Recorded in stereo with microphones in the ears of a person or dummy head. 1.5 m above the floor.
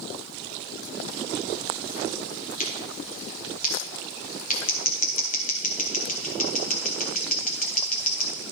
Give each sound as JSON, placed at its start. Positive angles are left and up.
{"t": 2.6, "sound": "scissors", "side_deg": 30, "distance_m": 0.9}